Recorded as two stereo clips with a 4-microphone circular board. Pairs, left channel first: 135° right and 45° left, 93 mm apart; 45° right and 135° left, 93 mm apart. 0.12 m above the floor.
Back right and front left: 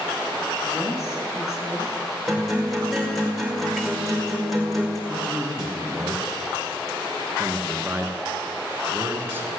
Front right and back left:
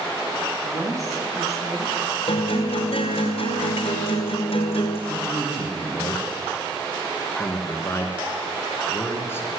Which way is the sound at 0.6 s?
175° left.